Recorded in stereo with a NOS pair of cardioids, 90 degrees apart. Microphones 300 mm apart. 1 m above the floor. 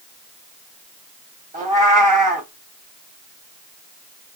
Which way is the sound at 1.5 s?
25° right.